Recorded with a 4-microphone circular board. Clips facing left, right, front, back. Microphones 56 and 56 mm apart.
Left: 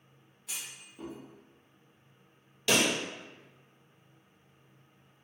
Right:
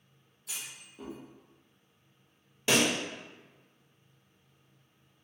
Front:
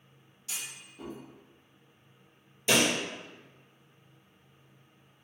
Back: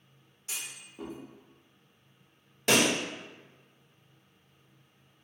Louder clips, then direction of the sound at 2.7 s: Right 1 dB, back 1 dB; 155° right.